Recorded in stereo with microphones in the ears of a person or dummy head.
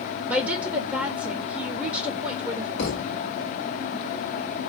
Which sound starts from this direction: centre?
A woman speaking, at 0.3 s.